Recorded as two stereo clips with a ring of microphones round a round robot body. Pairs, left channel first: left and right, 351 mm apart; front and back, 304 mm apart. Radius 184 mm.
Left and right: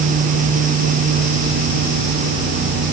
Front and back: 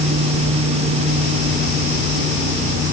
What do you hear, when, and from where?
Only background noise.